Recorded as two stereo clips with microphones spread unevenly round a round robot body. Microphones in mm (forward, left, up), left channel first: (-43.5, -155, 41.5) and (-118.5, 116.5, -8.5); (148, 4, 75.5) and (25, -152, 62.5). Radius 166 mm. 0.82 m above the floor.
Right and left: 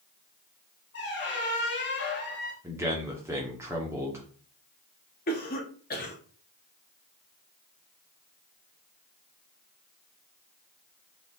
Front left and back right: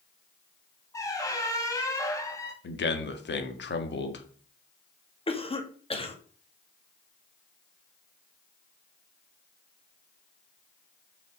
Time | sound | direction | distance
0.9 | a squeak | 20° right | 1.8 m
2.6 | a man speaking | 25° left | 1.5 m
5.3 | a cough | 10° right | 1.8 m